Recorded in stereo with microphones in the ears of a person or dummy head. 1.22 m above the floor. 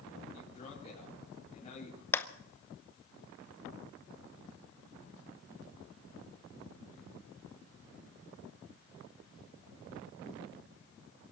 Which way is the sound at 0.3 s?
30° left (ahead or behind).